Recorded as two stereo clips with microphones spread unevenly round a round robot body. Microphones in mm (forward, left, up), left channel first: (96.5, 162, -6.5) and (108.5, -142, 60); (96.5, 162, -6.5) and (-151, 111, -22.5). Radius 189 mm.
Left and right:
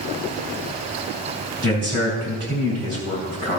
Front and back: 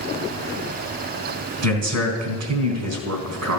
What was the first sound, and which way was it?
A man speaking, 155° right.